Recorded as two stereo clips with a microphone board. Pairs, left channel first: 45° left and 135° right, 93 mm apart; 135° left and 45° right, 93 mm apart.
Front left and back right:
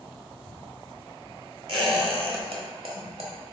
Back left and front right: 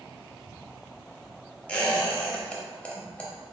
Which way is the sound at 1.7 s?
150° right.